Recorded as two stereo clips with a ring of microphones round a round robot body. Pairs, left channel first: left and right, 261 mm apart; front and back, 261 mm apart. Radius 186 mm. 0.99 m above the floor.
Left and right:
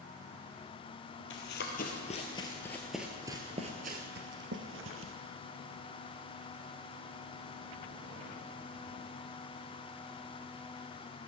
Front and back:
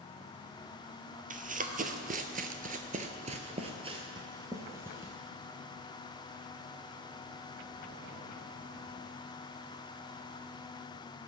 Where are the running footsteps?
130° left, 1.5 m; by 5.1 s 95° right, 1.6 m.